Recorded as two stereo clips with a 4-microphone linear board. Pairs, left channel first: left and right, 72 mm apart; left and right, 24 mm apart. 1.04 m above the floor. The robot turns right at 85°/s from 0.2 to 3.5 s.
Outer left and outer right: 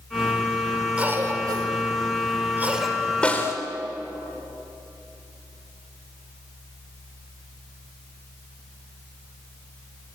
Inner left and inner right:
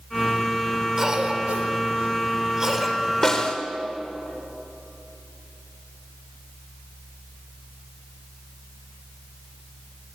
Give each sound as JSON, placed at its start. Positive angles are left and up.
{"t": 1.0, "sound": "a cough", "side_deg": -15, "distance_m": 4.5}
{"t": 3.2, "sound": "a snare drum", "side_deg": 15, "distance_m": 3.0}